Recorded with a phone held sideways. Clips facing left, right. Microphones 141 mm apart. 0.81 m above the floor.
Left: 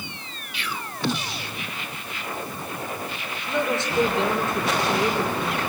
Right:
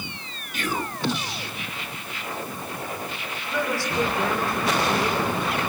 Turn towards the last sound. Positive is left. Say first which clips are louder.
# left 2 dB
turn(degrees=25)  # may be behind; listen again after turning